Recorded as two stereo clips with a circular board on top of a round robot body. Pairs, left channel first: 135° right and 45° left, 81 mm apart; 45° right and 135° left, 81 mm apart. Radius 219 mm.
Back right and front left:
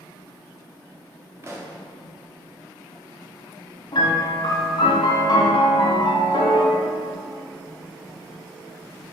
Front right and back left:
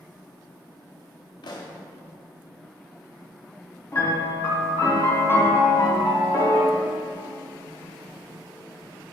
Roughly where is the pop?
Ahead.